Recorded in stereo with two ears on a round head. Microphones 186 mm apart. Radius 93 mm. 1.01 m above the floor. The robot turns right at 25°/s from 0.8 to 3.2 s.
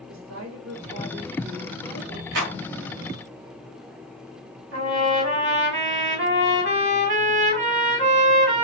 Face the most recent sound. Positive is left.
turn(degrees=-60)  # may be behind; listen again after turning